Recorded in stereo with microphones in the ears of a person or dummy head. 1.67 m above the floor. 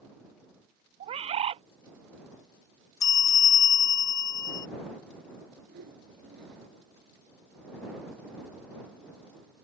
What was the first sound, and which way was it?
A bird, 25° right (ahead or behind).